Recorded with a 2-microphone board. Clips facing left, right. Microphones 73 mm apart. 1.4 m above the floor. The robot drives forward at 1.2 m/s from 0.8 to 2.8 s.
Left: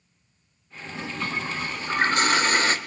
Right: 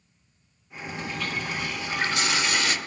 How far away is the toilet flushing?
About 2 m.